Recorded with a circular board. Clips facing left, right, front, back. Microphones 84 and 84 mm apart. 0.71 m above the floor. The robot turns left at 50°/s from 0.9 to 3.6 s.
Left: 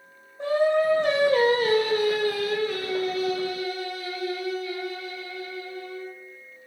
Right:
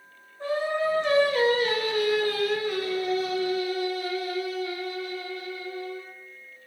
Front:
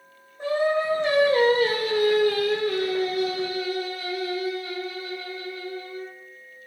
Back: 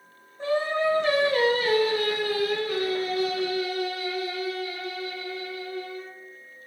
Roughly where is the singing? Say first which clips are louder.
Left 5 dB, front 2 dB; left.